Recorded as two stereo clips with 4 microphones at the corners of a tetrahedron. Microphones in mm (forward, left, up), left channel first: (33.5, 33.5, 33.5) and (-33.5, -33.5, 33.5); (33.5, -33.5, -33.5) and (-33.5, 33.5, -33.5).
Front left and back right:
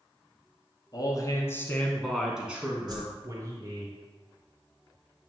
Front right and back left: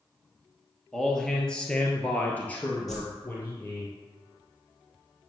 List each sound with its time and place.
0.9 s a man speaking: 40° left, 1.8 m; by 3.9 s 110° right, 2 m
2.9 s a whoosh: 130° right, 2 m